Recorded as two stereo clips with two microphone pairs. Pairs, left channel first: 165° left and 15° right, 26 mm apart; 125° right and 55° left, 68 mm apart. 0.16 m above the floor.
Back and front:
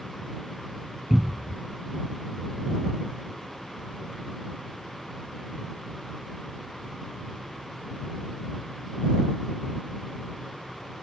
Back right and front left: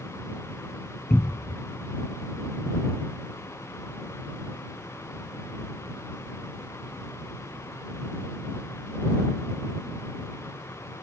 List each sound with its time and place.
1.1 s a cupboard door: 85° right